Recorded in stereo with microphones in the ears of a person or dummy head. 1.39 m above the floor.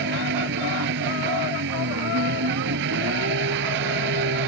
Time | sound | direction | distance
0.0 | an engine running | 60° right (ahead or behind) | ?